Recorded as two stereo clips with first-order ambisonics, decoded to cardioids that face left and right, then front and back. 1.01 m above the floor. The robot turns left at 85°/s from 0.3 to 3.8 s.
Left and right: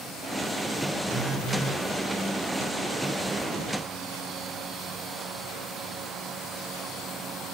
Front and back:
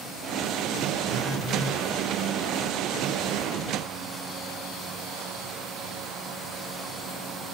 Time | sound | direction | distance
1.1 | a phone buzzing | 170° left | 0.6 m